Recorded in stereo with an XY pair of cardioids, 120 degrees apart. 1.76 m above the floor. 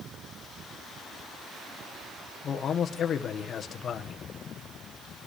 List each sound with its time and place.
2.4 s a man speaking: 45° left, 1.4 m